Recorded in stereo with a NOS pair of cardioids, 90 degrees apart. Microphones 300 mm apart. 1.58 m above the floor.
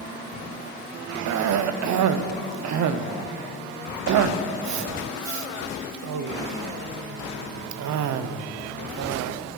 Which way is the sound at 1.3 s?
65° right.